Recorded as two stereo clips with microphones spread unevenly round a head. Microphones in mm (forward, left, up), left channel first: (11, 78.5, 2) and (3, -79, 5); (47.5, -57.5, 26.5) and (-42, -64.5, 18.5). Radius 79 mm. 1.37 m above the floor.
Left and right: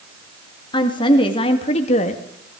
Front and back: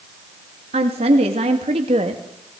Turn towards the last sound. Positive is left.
turn(degrees=135)